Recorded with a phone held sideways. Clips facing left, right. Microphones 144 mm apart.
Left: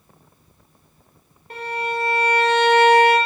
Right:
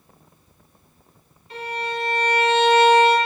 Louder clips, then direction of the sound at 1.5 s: Left 2 dB; 55° left (ahead or behind).